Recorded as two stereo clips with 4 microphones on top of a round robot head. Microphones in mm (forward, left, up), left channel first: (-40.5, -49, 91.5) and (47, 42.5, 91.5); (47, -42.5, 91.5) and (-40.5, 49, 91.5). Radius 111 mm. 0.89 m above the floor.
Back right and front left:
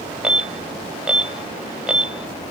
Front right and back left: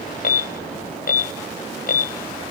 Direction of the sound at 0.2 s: 35° right.